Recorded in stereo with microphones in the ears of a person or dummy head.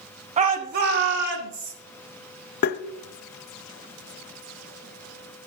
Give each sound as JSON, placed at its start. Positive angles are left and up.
{"t": 0.4, "sound": "a shout", "side_deg": -25, "distance_m": 0.7}
{"t": 2.6, "sound": "tapping", "side_deg": 50, "distance_m": 0.6}